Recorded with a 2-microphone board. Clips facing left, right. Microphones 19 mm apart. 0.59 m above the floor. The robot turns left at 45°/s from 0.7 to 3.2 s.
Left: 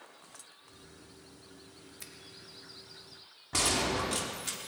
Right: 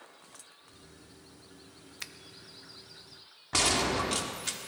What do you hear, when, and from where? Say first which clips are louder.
2.0 s a finger snap: right 9 dB; 40° right (ahead or behind), 0.5 m
3.5 s a gunshot: right 2 dB; 20° right (ahead or behind), 1.3 m